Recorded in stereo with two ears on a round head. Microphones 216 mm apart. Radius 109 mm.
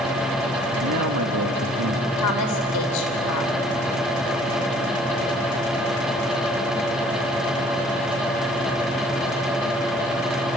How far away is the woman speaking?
About 4 m.